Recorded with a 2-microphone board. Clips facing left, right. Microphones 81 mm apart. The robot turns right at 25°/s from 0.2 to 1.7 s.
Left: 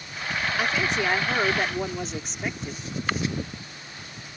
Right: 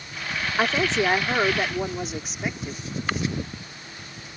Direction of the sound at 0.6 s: 30° right (ahead or behind).